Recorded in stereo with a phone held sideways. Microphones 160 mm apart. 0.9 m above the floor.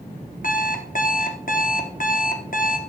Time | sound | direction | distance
0.4 | an alarm clock | 60° left (ahead or behind) | 0.9 m